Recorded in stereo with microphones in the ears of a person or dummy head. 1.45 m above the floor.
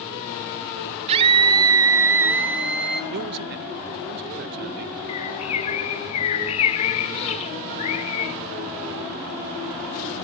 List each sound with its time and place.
1.1 s a scream: 35° right (ahead or behind), 2.5 m; by 3.0 s centre (ahead or behind), 3 m
3.1 s a man speaking: 55° right (ahead or behind), 0.5 m
5.1 s a bird: 35° left (ahead or behind), 1.4 m